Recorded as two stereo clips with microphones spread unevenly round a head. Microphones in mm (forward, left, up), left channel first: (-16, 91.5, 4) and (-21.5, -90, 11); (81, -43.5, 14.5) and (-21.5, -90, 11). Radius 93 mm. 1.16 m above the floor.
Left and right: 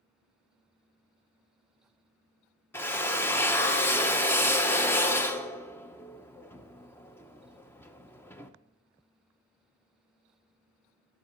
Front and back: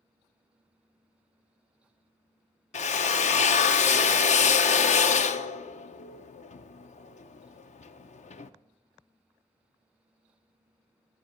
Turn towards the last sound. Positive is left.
turn(degrees=10)